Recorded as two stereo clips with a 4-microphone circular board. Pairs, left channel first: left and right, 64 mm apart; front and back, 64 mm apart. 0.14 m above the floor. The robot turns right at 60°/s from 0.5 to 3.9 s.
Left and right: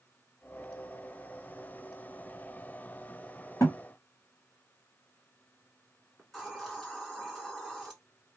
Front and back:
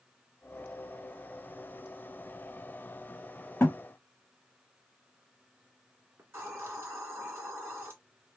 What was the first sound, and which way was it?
A thud, 55° left.